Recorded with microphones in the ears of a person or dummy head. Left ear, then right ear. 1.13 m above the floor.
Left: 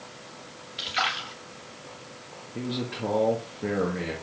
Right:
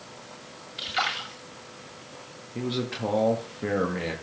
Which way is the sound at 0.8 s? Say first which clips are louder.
Left 1 dB; centre (ahead or behind).